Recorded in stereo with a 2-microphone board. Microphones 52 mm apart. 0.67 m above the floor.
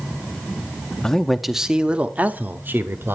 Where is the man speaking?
10° left (ahead or behind), 0.8 m; by 3.1 s 45° right (ahead or behind), 1.3 m.